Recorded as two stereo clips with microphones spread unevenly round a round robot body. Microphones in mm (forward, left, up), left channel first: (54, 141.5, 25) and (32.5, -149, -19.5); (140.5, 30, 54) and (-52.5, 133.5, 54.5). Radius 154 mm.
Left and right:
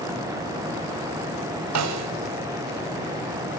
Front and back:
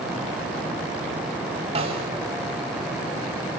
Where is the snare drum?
135° right, 1.0 m.